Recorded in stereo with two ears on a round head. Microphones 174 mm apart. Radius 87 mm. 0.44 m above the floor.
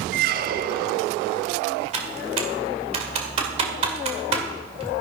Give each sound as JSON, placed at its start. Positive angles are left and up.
{"t": 0.1, "sound": "a squeak", "side_deg": -45, "distance_m": 0.6}
{"t": 1.9, "sound": "typing on a keyboard", "side_deg": -30, "distance_m": 2.0}